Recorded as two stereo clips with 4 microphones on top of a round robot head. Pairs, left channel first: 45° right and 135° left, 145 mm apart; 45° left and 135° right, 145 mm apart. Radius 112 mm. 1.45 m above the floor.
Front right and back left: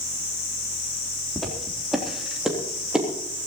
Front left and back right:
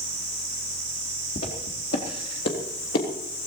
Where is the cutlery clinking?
No cutlery clinking in this recording.